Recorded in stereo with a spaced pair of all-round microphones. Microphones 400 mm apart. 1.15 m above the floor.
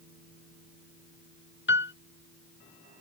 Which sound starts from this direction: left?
A piano, at 1.7 s.